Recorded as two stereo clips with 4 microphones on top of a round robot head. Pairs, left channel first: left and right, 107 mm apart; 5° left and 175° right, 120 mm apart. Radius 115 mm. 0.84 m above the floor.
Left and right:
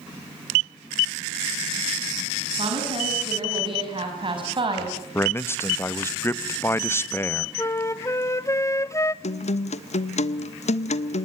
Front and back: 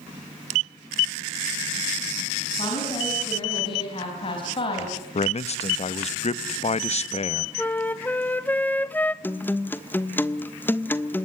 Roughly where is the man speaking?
Ahead left.